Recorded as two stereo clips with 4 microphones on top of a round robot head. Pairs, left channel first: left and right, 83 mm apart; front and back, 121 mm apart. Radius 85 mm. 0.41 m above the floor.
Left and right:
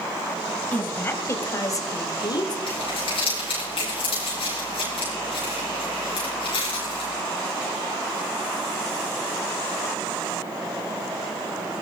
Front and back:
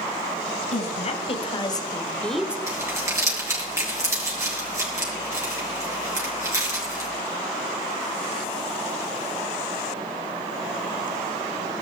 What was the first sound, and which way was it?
A woman speaking, 25° left.